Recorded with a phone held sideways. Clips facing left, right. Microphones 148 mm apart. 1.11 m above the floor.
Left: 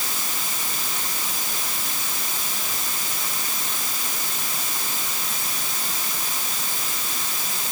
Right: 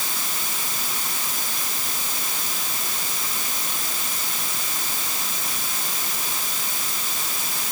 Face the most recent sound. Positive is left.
No sound to turn to.